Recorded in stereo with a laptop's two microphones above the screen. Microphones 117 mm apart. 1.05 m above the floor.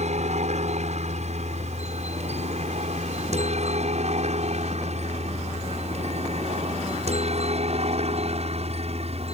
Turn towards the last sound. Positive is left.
turn(degrees=-60)  # may be behind; listen again after turning